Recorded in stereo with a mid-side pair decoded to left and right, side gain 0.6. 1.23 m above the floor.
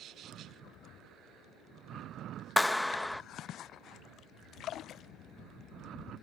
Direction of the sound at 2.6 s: 5° left.